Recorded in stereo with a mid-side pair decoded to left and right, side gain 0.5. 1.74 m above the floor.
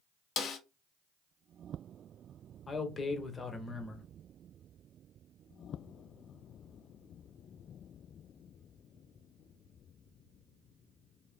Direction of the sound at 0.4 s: 60° left.